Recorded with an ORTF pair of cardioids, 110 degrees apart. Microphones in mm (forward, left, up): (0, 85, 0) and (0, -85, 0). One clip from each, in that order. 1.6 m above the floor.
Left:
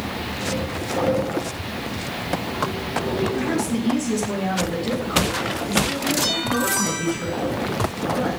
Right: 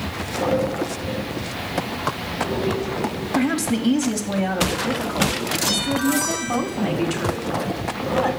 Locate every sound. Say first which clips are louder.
3.3 s a woman speaking: right 2 dB; 60° right, 3.5 m; by 8.3 s 70° right, 6.5 m